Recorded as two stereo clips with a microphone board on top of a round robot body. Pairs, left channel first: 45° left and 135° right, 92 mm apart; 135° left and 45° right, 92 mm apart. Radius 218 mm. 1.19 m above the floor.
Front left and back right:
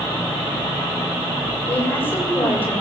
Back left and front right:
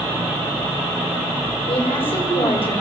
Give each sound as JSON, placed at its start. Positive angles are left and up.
{"t": 1.7, "sound": "a woman speaking", "azimuth_deg": 115, "distance_m": 6.5}